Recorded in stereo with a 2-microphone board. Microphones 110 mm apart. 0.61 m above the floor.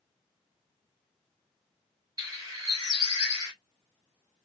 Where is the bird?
30° right (ahead or behind), 1.5 m.